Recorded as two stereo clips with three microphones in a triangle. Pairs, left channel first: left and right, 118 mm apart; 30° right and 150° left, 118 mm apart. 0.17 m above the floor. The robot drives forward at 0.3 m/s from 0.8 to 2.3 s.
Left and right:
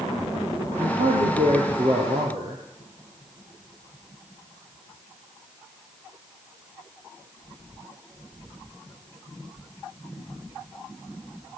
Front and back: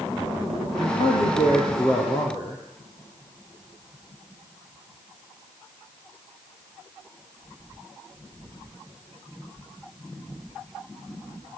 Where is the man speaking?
75° right, 4.5 m; by 2.6 s 80° right, 4.5 m.